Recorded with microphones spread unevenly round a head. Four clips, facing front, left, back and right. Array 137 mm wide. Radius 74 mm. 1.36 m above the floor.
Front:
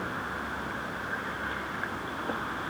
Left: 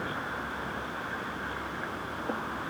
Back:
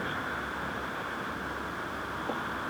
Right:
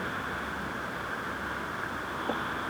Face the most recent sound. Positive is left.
No sound to turn to.